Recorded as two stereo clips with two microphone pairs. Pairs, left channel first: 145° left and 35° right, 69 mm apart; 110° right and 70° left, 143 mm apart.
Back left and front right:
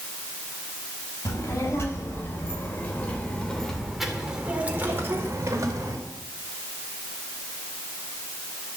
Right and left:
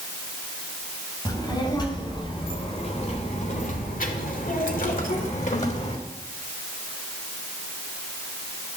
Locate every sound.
1.2 s a child speaking: 175° right, 4.5 m; by 6.0 s 70° right, 3 m